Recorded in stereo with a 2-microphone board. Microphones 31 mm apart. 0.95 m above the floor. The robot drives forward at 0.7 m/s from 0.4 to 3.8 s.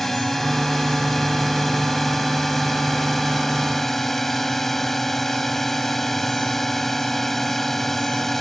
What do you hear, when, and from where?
0.0 s a drone: 5° left (ahead or behind)